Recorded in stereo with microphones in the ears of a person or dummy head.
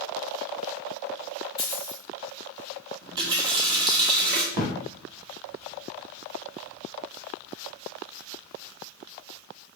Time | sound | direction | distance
1.6 | a dropped coin | 20° left (ahead or behind) | 1.0 m
3.0 | a running tap | 25° right (ahead or behind) | 1.1 m
4.5 | a thud | 45° left (ahead or behind) | 1.6 m